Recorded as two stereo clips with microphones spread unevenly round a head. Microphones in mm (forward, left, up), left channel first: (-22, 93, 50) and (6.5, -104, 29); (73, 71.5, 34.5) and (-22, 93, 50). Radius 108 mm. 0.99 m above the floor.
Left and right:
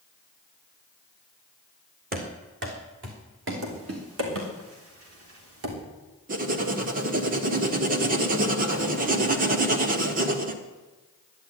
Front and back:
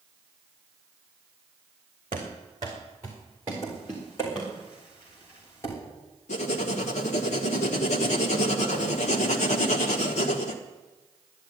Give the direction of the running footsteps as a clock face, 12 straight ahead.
4 o'clock.